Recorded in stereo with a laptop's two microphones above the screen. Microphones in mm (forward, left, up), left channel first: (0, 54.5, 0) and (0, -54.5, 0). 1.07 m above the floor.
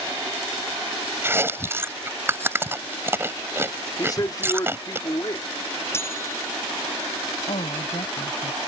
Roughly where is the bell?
Left.